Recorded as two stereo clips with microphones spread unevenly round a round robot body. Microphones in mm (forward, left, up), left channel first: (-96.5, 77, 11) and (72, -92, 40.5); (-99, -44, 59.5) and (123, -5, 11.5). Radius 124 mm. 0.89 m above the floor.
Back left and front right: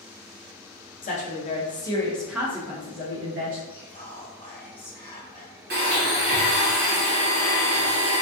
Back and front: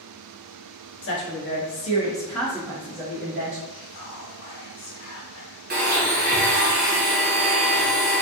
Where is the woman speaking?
170° left, 1.1 m; by 3.6 s 5° left, 1.2 m.